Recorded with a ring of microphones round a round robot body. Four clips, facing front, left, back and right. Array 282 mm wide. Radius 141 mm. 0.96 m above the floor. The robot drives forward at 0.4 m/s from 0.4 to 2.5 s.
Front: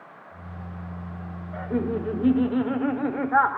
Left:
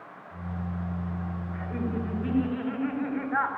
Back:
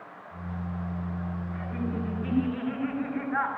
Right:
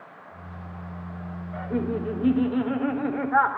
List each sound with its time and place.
1.5 s laughter: 25° right, 4 m; by 3.6 s 30° right, 3.5 m